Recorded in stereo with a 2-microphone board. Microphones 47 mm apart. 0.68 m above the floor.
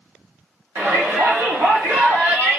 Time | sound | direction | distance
0.8 | a shout | 55° right (ahead or behind) | 1.7 m